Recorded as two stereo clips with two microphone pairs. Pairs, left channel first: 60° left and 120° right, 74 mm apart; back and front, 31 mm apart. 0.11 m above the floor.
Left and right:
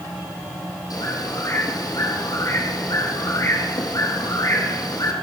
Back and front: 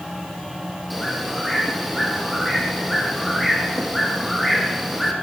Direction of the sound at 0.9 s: 90° left.